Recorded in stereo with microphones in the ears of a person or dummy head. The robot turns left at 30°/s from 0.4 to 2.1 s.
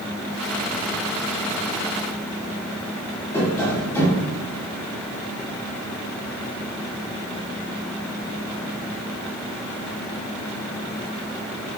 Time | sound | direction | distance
3.3 | tapping | 15° left (ahead or behind) | 2.0 m